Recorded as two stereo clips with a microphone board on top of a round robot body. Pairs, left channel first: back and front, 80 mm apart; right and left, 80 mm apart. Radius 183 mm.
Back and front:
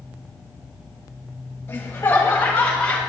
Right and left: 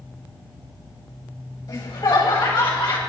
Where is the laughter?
115° right, 3.5 m; by 3.0 s 105° right, 3 m.